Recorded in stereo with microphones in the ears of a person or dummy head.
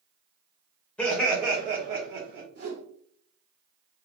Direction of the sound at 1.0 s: 15° left (ahead or behind).